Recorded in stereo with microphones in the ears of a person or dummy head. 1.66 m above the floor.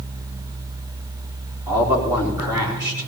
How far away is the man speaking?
About 3.5 m.